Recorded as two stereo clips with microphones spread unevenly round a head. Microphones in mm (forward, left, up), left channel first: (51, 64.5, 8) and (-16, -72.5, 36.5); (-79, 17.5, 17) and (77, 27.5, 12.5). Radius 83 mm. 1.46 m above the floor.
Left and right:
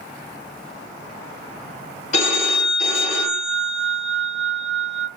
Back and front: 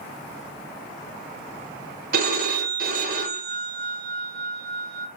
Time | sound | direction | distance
2.1 | a phone ringing | 20° left | 1.2 m